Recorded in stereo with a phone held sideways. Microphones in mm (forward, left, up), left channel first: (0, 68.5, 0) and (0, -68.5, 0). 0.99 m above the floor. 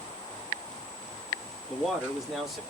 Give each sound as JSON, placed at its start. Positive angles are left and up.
{"t": 1.7, "sound": "a man speaking", "side_deg": 0, "distance_m": 1.6}